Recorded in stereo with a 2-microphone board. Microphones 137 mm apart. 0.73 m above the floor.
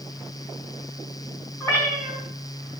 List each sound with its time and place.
1.6 s a cat meowing: 15° left (ahead or behind), 4 m